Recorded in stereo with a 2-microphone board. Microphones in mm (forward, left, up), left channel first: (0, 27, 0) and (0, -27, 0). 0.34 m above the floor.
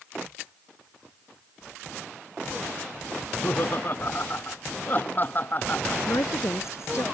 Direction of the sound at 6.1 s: 60° left (ahead or behind).